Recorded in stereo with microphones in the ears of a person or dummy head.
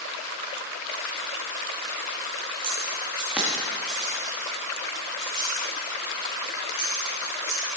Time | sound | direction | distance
2.6 | keys jangling | 20° right (ahead or behind) | 1.5 m